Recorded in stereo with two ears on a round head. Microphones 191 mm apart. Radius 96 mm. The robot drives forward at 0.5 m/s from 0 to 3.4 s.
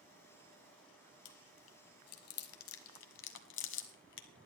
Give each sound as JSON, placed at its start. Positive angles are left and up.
{"t": 1.2, "sound": "chewing", "side_deg": 60, "distance_m": 1.2}